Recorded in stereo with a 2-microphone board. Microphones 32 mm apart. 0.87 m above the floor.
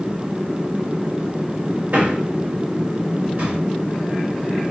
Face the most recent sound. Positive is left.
turn(degrees=-60)  # may be behind; listen again after turning